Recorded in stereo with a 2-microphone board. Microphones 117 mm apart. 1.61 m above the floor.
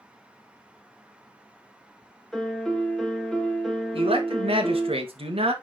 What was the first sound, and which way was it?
A piano, 5° left (ahead or behind).